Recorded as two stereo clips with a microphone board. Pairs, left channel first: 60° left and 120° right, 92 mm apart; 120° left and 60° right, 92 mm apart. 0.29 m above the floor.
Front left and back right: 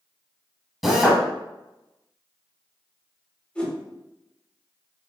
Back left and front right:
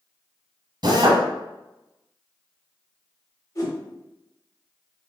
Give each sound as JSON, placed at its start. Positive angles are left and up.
{"t": 0.8, "sound": "a drill", "azimuth_deg": -35, "distance_m": 1.0}
{"t": 3.5, "sound": "a whoosh", "azimuth_deg": 125, "distance_m": 1.0}